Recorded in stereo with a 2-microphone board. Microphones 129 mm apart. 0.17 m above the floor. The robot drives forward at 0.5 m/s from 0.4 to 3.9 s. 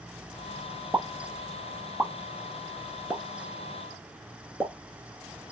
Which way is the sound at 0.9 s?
15° right (ahead or behind).